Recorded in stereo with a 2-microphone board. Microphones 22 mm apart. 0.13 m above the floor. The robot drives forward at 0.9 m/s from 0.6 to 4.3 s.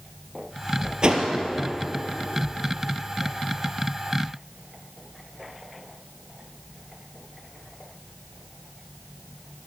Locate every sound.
1.0 s a whoosh: 40° right (ahead or behind), 3 m; by 1.3 s 35° right (ahead or behind), 3 m